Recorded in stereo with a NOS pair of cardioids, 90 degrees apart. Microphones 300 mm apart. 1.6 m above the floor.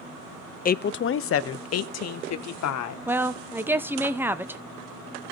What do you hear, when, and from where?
0.7 s a woman speaking: 30° left, 0.5 m; by 3.0 s 65° left, 1.7 m
3.1 s a woman speaking: 5° right, 0.9 m